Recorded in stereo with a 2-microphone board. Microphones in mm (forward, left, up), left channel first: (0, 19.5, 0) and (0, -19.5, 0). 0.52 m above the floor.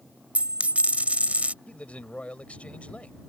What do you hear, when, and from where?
0.3 s a dropped coin: 40° right (ahead or behind)
1.7 s a man speaking: 35° left (ahead or behind)